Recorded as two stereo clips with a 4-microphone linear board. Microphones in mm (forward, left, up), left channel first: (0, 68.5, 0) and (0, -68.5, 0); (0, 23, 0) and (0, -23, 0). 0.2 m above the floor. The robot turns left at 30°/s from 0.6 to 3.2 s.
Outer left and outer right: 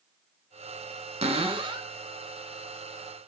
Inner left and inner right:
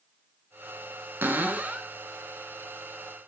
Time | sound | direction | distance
1.2 | a cupboard door | 50° right (ahead or behind) | 0.6 m